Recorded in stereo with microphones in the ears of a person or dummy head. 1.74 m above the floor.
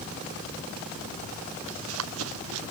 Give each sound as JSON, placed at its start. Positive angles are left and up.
{"t": 1.7, "sound": "running footsteps", "side_deg": -85}